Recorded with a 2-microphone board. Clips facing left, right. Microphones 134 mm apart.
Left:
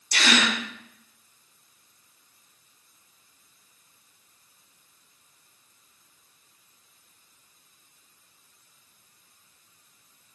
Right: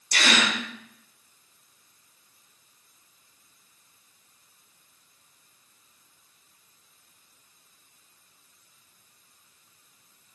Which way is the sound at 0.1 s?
55° right (ahead or behind).